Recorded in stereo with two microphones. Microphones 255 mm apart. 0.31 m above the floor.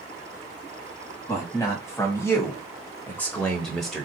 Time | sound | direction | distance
1.3 | a man speaking | 10° left (ahead or behind) | 1.6 m